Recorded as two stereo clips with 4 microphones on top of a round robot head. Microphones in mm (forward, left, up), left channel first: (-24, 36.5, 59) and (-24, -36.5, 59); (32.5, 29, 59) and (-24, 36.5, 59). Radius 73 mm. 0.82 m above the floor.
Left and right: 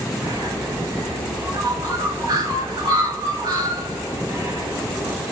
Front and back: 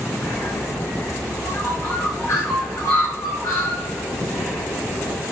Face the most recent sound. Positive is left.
turn(degrees=-60)